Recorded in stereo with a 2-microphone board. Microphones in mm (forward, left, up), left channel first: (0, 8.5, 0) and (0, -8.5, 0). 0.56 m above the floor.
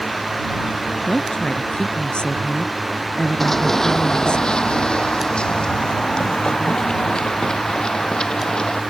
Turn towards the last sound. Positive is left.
turn(degrees=45)  # may be behind; listen again after turning